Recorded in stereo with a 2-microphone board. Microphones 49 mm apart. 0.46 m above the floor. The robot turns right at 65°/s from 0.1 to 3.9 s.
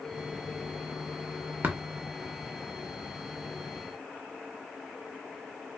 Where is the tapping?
40° right (ahead or behind), 0.6 m; by 1.8 s 45° right (ahead or behind), 0.6 m.